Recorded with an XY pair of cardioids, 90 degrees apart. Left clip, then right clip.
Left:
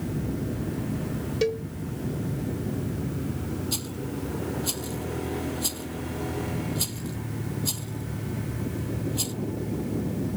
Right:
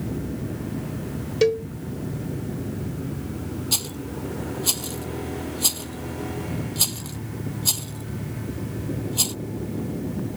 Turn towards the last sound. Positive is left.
turn(degrees=-55)